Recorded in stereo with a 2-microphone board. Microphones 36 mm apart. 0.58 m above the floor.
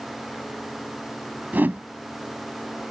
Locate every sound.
1.5 s a whoosh: 55° right (ahead or behind)